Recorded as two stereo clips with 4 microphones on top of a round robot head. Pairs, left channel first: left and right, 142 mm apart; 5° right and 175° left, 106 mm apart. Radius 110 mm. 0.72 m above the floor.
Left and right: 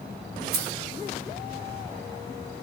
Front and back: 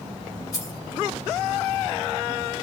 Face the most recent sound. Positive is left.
turn(degrees=-70)